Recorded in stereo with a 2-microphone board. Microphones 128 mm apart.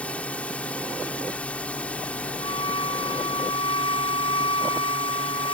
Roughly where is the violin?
Left.